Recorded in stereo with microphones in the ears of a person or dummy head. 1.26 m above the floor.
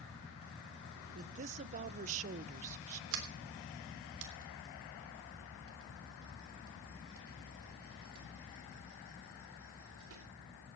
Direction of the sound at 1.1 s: 45° right (ahead or behind).